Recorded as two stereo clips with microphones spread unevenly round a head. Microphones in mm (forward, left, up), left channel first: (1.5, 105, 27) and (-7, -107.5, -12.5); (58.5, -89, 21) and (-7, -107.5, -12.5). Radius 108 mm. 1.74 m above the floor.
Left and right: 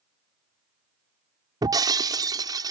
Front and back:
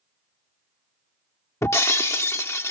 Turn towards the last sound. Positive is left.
turn(degrees=-15)